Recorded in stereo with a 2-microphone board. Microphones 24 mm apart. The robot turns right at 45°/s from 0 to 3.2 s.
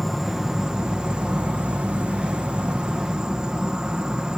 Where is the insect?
175° left; by 4.4 s 40° right.